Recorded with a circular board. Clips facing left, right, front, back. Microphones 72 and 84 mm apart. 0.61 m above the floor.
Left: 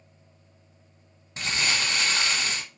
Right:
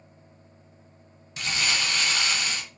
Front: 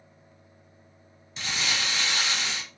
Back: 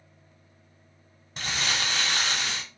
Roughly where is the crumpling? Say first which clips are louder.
Even, back 1 dB; behind left.